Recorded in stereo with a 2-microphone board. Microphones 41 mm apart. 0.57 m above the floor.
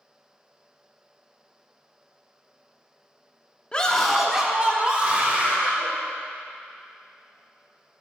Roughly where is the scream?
Left.